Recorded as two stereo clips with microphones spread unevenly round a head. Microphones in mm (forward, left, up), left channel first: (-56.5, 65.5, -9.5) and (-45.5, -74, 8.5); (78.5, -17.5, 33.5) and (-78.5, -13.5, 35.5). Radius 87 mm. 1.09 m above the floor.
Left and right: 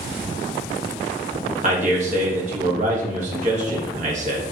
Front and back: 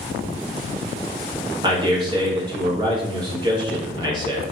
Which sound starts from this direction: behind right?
A man speaking, at 1.6 s.